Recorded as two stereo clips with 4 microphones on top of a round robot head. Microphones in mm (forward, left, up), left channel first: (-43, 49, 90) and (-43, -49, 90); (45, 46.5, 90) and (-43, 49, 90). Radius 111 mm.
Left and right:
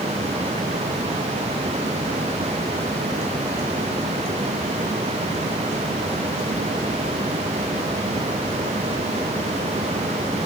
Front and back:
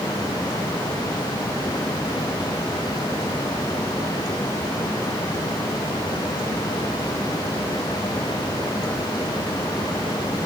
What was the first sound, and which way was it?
Only background noise.